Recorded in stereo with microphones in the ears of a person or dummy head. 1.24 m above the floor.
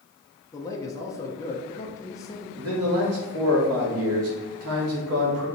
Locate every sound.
0.5 s a man speaking: 15° left (ahead or behind), 0.9 m
2.6 s a man speaking: 70° right (ahead or behind), 1.9 m